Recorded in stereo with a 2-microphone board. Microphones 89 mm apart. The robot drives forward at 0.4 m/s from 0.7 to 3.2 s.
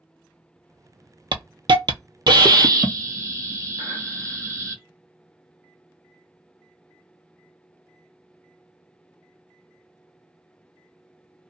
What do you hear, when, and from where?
1.3 s a hiss: 65° right (ahead or behind), 0.5 m; by 4.8 s 35° right (ahead or behind), 0.8 m